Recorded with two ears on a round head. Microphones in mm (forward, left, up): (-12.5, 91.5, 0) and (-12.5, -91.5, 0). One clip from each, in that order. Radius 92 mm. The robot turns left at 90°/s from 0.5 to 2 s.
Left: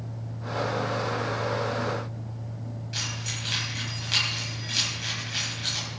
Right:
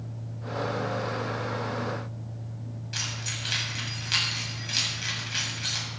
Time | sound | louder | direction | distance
2.9 | keys jangling | even | 10° right (ahead or behind) | 5.5 m